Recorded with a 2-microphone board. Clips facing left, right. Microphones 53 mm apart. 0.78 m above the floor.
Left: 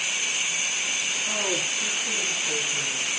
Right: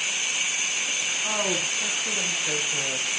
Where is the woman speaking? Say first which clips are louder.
Right 2 dB; 55° right (ahead or behind), 5.5 m; by 3.2 s 65° right (ahead or behind), 3 m.